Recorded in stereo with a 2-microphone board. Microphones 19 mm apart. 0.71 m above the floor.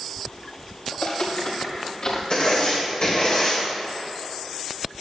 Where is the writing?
50° left (ahead or behind), 3 m.